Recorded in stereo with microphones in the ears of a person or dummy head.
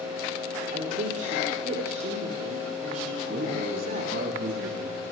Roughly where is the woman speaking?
Right.